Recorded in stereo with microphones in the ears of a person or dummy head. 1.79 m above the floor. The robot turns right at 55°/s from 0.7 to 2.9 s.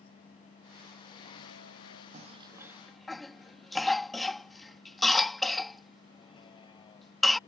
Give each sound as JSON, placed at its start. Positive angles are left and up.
{"t": 0.0, "sound": "a vehicle", "azimuth_deg": 30}
{"t": 2.1, "sound": "a cough", "side_deg": -45}